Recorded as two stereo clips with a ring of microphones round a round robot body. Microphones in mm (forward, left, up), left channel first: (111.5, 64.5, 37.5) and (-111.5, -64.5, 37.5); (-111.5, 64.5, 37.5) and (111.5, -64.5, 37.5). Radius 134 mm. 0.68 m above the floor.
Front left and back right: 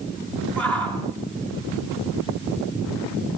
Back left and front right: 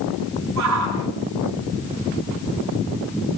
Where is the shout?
55° right, 8 m.